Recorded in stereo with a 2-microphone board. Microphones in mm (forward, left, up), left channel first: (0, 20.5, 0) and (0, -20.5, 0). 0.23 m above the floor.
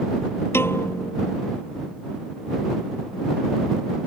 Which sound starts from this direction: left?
A piano, at 0.5 s.